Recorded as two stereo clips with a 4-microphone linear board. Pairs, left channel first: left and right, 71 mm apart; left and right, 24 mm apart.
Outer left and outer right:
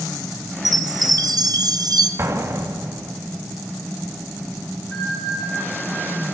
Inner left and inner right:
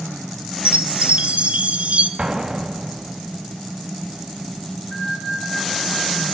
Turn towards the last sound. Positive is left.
turn(degrees=30)  # may be behind; listen again after turning